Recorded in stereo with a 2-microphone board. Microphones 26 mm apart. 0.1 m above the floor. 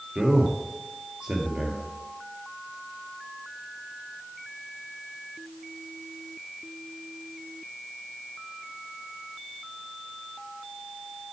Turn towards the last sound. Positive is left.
turn(degrees=-30)  # may be behind; listen again after turning